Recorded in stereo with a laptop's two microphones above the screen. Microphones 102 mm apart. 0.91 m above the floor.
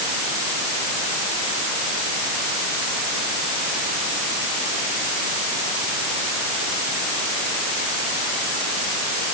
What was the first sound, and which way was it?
Only background noise.